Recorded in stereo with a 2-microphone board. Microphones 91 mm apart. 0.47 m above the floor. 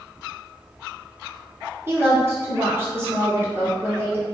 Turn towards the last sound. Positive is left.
turn(degrees=-25)  # may be behind; listen again after turning